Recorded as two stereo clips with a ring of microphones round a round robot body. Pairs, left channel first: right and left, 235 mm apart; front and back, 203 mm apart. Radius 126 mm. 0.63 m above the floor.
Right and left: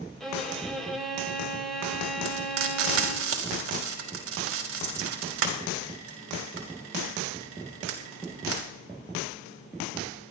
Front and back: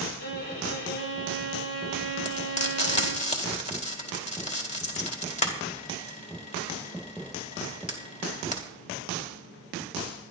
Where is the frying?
55° left, 3 m.